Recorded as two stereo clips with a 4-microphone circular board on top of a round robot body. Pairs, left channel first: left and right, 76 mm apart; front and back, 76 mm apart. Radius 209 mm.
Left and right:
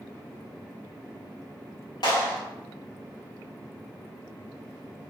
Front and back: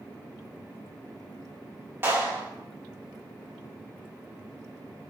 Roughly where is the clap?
Behind left.